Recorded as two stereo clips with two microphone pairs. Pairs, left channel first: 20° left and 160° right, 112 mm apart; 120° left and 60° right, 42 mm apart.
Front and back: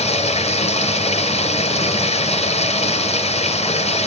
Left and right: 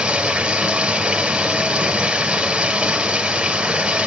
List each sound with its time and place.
0.0 s running water: 5° left, 2.5 m